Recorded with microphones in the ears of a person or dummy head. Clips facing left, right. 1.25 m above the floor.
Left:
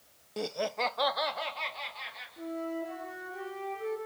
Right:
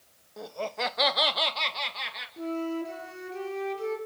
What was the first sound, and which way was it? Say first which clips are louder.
Laughter: left 1 dB; 45° left (ahead or behind).